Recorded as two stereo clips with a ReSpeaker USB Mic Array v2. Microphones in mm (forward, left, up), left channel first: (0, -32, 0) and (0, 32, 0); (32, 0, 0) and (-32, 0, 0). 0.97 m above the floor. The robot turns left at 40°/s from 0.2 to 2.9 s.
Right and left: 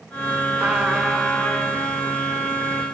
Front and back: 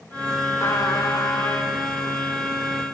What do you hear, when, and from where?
0.6 s a trumpet: 20° left, 1.7 m; by 1.8 s 25° right, 1.7 m